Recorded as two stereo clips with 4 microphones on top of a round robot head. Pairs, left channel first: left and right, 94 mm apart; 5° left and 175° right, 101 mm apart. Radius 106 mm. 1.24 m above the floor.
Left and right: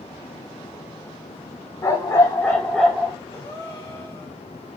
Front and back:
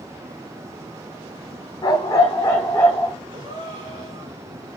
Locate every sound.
1.8 s a dog barking: 45° left, 1.1 m; by 3.2 s 70° right, 0.8 m
3.3 s a gasp: 150° left, 2.5 m